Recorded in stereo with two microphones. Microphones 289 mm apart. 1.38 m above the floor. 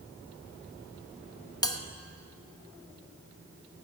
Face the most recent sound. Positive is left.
turn(degrees=15)  # may be behind; listen again after turning